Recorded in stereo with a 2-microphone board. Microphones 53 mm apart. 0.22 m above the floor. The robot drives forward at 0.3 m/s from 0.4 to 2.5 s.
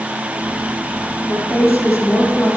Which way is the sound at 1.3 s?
80° left.